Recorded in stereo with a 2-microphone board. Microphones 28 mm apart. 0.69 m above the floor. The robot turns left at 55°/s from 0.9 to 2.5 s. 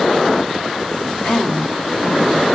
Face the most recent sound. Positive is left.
turn(degrees=-10)